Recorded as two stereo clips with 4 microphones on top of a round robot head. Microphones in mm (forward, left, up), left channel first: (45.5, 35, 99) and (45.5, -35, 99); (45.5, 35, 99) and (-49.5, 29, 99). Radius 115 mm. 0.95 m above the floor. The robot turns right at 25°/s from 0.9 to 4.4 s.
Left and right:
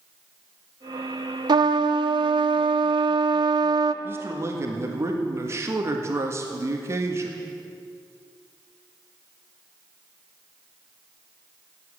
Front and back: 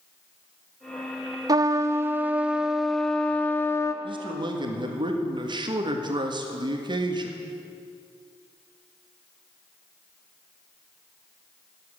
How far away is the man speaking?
About 1.7 m.